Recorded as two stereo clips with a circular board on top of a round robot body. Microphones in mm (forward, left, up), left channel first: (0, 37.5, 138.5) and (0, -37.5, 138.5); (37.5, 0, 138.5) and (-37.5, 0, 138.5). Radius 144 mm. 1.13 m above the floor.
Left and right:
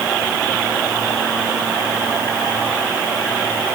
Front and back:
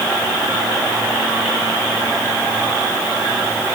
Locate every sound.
Only background noise.